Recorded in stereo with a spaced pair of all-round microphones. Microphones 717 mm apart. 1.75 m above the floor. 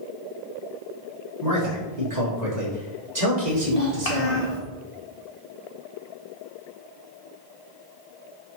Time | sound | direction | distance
1.4 | a man speaking | 70° right (ahead or behind) | 4.5 m
3.5 | a child speaking | 55° left (ahead or behind) | 1.1 m